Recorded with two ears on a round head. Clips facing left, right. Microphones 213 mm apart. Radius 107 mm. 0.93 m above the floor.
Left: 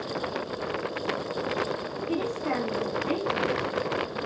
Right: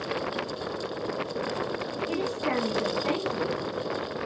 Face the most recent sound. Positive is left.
turn(degrees=-50)  # may be behind; listen again after turning